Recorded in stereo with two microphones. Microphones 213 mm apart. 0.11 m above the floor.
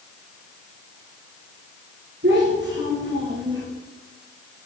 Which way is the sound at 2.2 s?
60° right (ahead or behind).